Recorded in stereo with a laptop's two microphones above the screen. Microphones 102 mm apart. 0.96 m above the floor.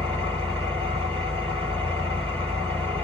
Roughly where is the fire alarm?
No fire alarm in this recording.